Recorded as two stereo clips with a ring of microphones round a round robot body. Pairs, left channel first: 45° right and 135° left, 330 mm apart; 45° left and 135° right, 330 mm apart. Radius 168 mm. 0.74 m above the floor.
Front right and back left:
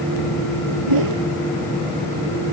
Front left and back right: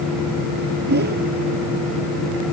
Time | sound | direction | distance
0.9 | a whoosh | 165° left | ?